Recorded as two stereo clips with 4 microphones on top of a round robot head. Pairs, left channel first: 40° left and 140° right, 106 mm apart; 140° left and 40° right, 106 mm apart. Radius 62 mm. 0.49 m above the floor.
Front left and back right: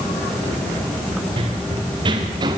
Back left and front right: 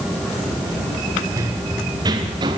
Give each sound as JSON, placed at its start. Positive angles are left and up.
{"t": 1.4, "sound": "running footsteps", "azimuth_deg": -100, "distance_m": 4.5}